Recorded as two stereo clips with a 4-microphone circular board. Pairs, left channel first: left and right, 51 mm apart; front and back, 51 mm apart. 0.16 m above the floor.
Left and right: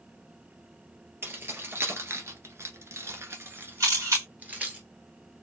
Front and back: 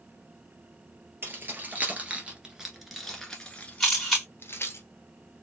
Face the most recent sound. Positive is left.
turn(degrees=-80)